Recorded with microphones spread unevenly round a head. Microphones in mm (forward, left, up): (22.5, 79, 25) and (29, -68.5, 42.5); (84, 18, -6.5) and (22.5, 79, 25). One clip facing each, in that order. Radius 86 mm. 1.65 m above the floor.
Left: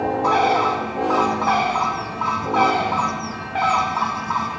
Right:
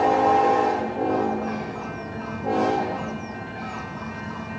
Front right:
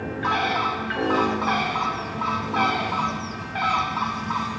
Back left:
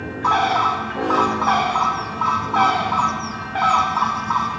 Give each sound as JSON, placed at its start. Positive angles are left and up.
{"t": 0.2, "sound": "a bird", "azimuth_deg": 85}